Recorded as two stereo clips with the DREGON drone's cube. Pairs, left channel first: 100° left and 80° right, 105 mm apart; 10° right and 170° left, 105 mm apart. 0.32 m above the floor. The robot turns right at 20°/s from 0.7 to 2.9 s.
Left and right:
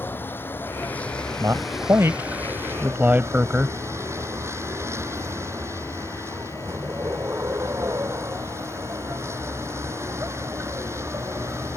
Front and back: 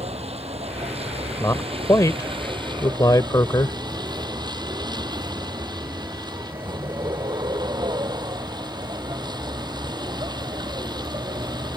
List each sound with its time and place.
0.0 s a vehicle: 175° left; by 11.8 s 145° right
1.4 s a man speaking: 50° right; by 3.8 s 20° right